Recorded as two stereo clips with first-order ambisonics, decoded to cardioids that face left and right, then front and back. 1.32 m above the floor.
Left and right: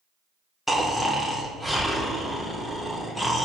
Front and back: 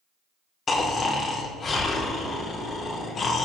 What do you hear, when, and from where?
0.7 s snoring: 5° left, 0.5 m